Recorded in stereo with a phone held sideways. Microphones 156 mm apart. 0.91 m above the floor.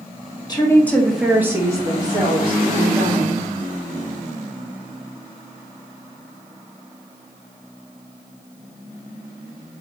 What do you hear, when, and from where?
0.5 s a woman speaking: 30° left (ahead or behind), 0.6 m; by 3.4 s 40° right (ahead or behind), 1.7 m